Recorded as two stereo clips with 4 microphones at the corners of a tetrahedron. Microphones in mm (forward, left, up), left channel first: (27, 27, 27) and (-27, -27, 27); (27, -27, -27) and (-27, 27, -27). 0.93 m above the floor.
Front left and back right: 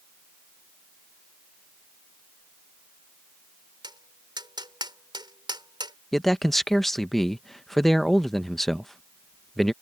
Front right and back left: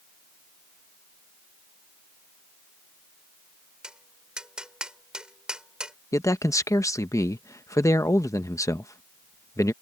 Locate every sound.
3.8 s tapping: 145° right
6.1 s a man speaking: 40° right